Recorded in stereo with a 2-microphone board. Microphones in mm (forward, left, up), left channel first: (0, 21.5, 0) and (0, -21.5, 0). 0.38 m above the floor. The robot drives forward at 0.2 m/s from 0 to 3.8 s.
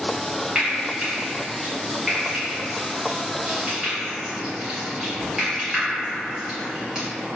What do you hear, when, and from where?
0.6 s frying: 10° right (ahead or behind), 0.9 m; by 7.0 s 5° right (ahead or behind), 1.6 m